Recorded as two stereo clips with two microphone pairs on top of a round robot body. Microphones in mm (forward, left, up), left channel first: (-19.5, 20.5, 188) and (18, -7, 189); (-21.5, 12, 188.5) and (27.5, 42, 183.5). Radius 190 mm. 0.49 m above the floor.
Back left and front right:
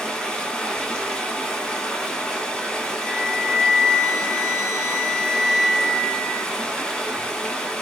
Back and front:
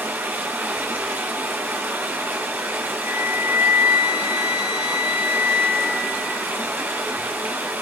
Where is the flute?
40° right, 0.7 m.